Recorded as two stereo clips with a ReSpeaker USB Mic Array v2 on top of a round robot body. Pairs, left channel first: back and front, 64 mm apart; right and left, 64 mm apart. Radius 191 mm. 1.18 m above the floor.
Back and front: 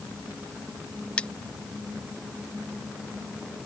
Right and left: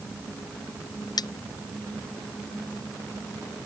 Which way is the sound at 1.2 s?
105° right.